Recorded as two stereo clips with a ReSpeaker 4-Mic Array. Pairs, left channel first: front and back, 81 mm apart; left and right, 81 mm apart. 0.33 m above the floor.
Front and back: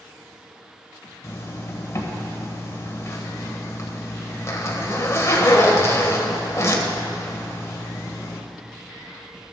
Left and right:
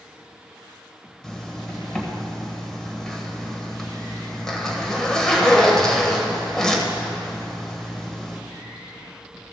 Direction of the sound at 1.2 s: 10° left.